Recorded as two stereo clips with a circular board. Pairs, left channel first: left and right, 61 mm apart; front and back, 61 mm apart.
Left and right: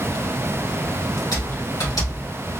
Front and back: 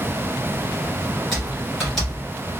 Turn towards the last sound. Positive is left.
turn(degrees=90)